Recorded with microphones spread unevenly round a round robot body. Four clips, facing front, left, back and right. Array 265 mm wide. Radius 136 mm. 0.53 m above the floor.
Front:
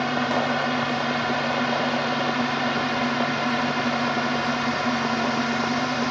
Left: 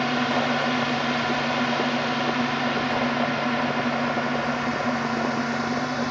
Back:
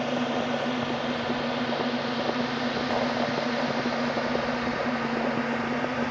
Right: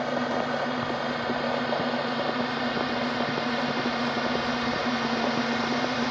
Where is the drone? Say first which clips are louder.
Left 3 dB, front 4 dB; 65° left; by 6.1 s 15° left.